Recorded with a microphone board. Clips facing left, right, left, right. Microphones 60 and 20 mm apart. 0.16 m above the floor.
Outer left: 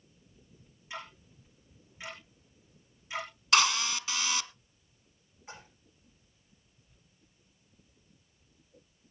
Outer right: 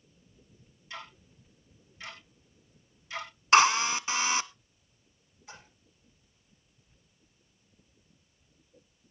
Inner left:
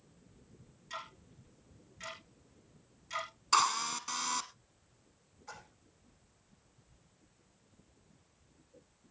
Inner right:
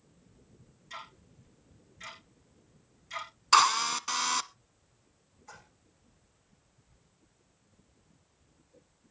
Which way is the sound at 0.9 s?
15° left (ahead or behind).